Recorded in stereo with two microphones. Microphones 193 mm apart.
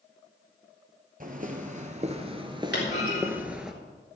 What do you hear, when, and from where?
1.2 s footsteps: 50° right (ahead or behind), 1.5 m; by 3.7 s 5° right (ahead or behind), 1.2 m
2.7 s a clunk: 65° left (ahead or behind), 3.5 m